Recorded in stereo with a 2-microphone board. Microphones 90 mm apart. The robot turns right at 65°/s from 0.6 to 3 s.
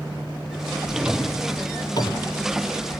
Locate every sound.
0.9 s a drawer: 15° right (ahead or behind), 1.7 m; by 2.3 s 65° left (ahead or behind), 1.7 m